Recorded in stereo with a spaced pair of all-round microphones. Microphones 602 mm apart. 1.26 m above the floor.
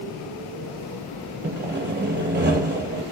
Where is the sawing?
20° right (ahead or behind), 1.6 m.